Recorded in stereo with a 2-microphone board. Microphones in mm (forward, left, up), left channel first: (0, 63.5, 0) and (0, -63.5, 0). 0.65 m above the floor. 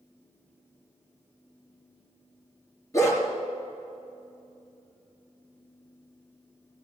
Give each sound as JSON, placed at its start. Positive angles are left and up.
{"t": 2.9, "sound": "a dog barking", "side_deg": 25, "distance_m": 3.5}